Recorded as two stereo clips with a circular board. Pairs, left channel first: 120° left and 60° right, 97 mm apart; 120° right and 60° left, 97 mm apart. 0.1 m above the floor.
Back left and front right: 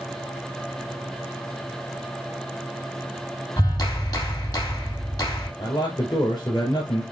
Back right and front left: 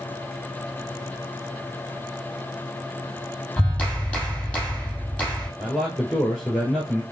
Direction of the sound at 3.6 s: 165° left.